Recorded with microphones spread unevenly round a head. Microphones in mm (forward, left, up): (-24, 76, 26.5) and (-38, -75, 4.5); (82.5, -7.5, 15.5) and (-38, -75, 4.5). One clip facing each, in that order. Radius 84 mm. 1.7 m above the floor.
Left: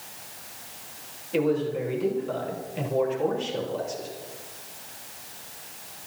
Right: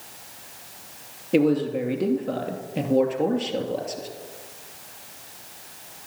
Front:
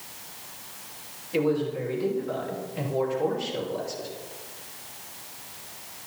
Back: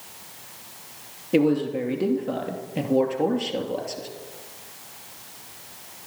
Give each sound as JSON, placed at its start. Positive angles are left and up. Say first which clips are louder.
{"t": 1.3, "sound": "a man speaking", "louder": "right 4 dB, back 5 dB", "azimuth_deg": -120, "distance_m": 2.5}